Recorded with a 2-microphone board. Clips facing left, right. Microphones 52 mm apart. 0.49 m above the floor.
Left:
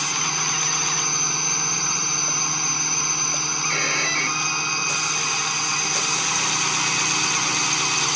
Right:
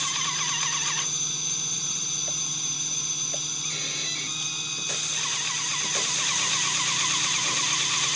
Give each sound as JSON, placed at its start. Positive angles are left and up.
{"t": 0.0, "sound": "a drone", "side_deg": 55}
{"t": 3.6, "sound": "a violin", "side_deg": 55}